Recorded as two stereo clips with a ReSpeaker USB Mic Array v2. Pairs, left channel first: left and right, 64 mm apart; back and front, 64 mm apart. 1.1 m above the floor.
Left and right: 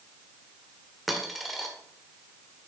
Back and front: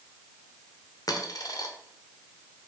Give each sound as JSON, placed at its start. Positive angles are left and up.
{"t": 1.1, "sound": "a dropped coin", "azimuth_deg": 180, "distance_m": 1.4}